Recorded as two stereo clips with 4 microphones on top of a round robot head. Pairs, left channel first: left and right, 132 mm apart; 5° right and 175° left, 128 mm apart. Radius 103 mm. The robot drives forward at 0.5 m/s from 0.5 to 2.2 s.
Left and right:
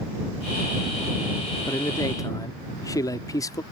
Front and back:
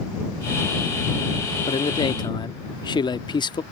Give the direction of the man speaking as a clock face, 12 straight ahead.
11 o'clock.